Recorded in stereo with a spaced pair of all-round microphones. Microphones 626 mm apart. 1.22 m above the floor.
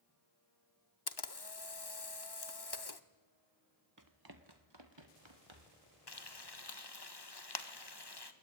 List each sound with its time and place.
1.1 s a camera shutter: 40° left (ahead or behind), 1.1 m
4.0 s running footsteps: 30° right (ahead or behind), 1.7 m; by 5.8 s 50° right (ahead or behind), 3.5 m
6.1 s frying: 40° left (ahead or behind), 1.7 m